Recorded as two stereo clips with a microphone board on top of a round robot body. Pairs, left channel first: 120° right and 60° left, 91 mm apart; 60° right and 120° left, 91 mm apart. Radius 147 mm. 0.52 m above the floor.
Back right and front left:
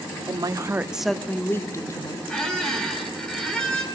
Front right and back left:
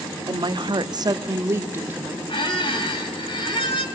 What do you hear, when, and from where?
0.3 s a woman speaking: 90° left, 1.2 m; by 2.2 s 165° right, 2 m
2.3 s a squeak: 35° right, 3 m